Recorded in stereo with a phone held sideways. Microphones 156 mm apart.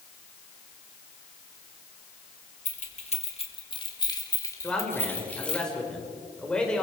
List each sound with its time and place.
2.6 s keys jangling: 50° left (ahead or behind), 2.5 m; by 5.6 s 5° left (ahead or behind), 3.5 m
4.6 s a man speaking: 5° left (ahead or behind), 5 m